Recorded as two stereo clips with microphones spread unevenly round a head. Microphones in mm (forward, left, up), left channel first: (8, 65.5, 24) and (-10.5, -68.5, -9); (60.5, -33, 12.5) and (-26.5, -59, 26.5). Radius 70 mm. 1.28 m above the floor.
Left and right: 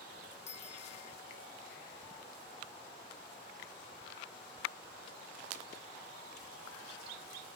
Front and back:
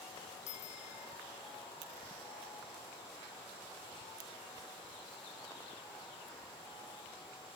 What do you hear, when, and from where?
0.5 s a bicycle bell: 35° left